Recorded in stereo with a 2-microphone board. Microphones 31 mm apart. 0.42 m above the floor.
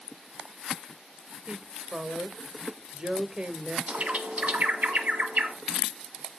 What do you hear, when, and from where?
1.5 s a woman speaking: 30° right (ahead or behind), 1.4 m
3.9 s a bird: 50° right (ahead or behind), 1.5 m